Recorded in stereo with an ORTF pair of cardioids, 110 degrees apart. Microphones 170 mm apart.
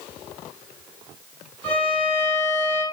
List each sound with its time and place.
1.6 s a violin: 10° left, 0.9 m